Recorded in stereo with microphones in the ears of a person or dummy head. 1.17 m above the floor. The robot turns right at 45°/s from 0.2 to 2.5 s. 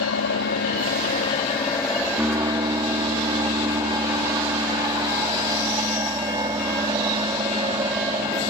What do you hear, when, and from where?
0.0 s an aircraft: 90° left; by 8.5 s 165° right